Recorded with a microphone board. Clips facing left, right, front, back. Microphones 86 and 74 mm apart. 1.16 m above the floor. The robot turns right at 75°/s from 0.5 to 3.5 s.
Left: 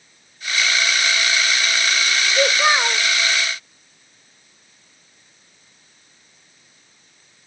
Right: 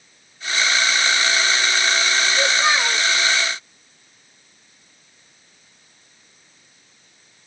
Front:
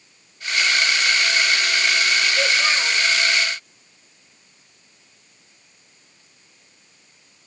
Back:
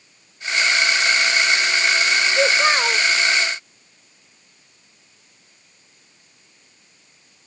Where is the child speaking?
125° left, 0.7 m; by 3.0 s 175° left, 0.7 m.